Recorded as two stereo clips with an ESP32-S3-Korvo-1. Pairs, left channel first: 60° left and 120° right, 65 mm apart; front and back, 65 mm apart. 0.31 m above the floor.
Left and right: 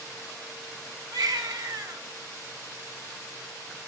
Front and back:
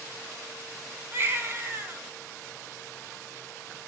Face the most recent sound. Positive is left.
turn(degrees=-125)